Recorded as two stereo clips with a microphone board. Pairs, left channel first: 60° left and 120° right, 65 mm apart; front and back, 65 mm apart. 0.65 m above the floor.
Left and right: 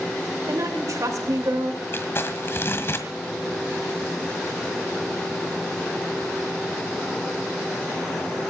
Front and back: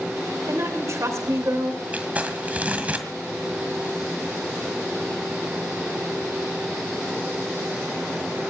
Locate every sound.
0.5 s a woman speaking: 145° right, 2.5 m
1.9 s crumpling: 115° left, 2.0 m